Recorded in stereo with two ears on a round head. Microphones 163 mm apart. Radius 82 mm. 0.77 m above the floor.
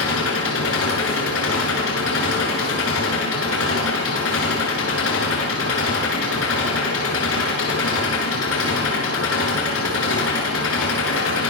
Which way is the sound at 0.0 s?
85° left.